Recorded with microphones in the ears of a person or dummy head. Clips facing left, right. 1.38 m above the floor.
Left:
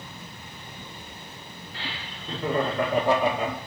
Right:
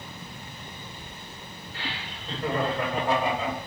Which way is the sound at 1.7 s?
65° left (ahead or behind).